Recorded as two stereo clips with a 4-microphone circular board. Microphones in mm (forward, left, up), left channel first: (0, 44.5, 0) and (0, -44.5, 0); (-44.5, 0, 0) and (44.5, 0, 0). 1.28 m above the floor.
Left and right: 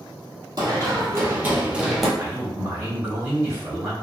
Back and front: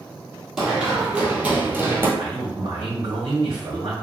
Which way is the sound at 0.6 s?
80° right.